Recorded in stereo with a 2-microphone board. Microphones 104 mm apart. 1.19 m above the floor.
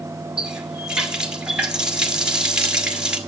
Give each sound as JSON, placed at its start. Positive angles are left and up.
{"t": 0.4, "sound": "a running tap", "side_deg": -10, "distance_m": 1.7}